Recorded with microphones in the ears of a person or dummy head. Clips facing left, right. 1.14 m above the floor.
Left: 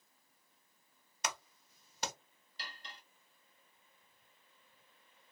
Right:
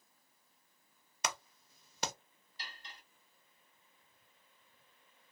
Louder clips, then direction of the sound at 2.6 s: Left 1 dB; 65° left (ahead or behind).